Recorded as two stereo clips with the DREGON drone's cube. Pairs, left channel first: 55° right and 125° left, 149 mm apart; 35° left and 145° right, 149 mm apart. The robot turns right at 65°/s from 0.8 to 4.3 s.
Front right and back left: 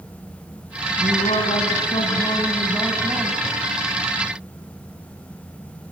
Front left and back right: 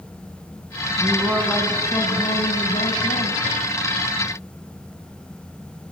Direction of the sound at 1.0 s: 90° right.